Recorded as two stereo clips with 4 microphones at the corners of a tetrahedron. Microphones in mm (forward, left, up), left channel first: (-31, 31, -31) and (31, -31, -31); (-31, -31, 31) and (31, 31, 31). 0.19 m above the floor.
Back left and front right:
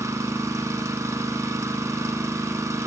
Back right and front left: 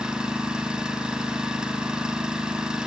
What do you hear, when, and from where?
0.0 s an engine running: 30° right, 0.9 m